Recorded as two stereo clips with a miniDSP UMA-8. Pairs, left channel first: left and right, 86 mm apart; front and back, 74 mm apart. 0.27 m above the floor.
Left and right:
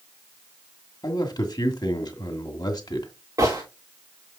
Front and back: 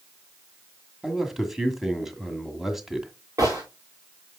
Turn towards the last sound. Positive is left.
turn(degrees=-140)